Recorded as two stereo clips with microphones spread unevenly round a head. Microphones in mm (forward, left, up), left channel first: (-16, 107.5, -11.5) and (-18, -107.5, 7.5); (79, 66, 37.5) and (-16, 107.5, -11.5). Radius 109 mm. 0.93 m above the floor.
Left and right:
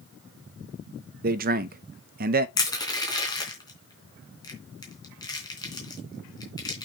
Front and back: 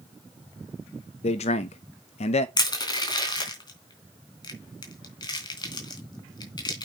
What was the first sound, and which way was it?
A man speaking, 60° right.